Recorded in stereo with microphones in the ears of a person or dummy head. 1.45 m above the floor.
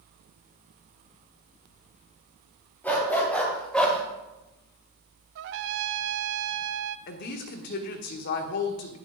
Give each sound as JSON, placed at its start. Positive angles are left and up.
{"t": 2.8, "sound": "a dog barking", "side_deg": 10, "distance_m": 2.5}
{"t": 5.3, "sound": "a trumpet", "side_deg": -70, "distance_m": 0.5}
{"t": 7.1, "sound": "a woman speaking", "side_deg": 60, "distance_m": 1.3}